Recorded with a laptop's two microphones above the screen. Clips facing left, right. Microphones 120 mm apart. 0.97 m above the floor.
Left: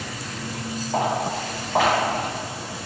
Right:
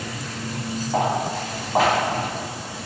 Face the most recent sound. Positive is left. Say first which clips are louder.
# right 1 dB
turn(degrees=-5)  # may be behind; listen again after turning